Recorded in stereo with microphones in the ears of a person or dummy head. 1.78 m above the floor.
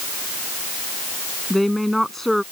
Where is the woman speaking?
Centre (ahead or behind).